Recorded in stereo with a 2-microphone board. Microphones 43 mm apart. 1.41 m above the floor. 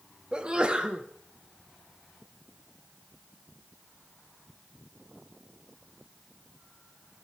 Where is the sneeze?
25° right (ahead or behind), 1.1 m.